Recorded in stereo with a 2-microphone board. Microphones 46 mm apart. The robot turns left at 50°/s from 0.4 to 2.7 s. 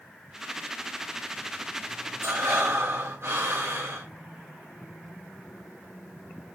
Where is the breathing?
75° right (ahead or behind), 4 m; by 4.1 s 65° right (ahead or behind), 4 m.